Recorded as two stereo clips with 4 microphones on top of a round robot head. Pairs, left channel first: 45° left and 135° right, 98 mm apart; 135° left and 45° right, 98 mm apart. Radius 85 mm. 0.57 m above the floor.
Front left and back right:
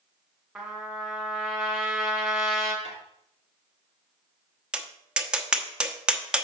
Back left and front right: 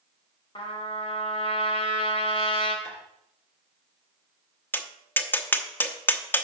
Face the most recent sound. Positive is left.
turn(degrees=160)